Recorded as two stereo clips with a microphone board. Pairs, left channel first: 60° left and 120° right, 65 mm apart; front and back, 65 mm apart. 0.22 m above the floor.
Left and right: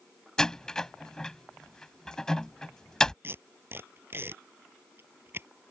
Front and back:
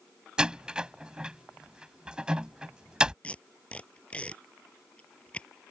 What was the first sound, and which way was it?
A door slam, 125° left.